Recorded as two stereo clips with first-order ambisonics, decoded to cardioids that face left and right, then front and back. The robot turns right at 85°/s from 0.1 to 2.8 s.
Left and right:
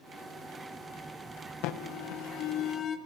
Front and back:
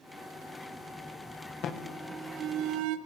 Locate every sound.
1.6 s an alarm: 55° left, 1.4 m; by 3.0 s 155° left, 1.4 m